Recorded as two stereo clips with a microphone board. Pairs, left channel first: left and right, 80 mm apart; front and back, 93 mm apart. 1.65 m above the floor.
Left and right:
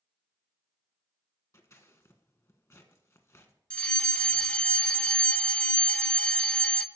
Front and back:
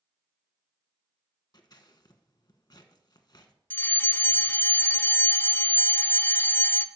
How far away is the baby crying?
No baby crying in this recording.